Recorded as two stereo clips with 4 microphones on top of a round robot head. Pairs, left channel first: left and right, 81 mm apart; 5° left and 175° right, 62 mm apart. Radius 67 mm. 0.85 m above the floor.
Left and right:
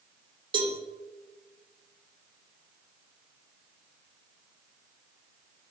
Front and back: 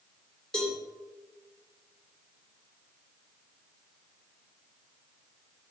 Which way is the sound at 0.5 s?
70° right.